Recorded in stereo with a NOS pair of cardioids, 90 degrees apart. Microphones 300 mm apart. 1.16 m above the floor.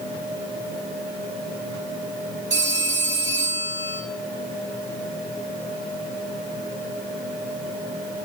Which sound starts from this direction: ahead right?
A phone ringing, at 2.5 s.